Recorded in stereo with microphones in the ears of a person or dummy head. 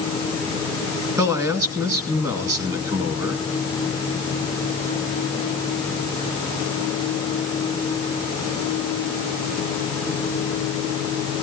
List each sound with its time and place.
1.2 s a man speaking: 15° right (ahead or behind), 2 m